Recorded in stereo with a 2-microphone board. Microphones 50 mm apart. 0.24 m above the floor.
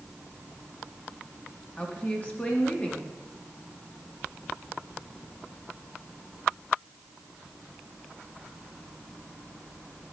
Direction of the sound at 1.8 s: 30° left (ahead or behind).